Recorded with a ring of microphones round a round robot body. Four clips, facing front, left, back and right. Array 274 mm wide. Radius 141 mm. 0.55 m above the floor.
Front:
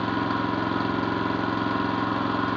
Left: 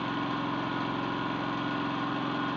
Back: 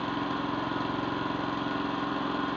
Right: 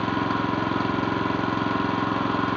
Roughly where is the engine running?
Ahead right.